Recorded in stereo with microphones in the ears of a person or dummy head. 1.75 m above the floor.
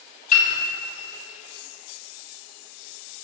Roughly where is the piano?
Left.